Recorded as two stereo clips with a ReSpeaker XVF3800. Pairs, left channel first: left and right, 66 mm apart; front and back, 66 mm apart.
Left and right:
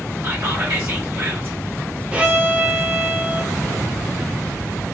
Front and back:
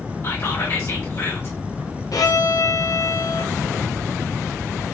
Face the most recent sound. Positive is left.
turn(degrees=-20)